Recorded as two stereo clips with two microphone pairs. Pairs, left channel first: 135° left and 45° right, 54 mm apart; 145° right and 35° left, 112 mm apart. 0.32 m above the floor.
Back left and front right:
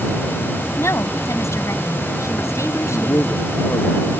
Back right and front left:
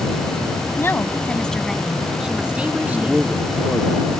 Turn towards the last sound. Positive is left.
turn(degrees=120)